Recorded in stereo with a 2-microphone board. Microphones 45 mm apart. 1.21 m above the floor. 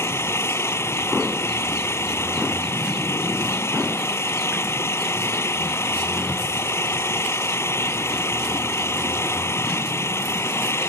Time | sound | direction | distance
0.0 | an engine running | 70° left (ahead or behind) | ?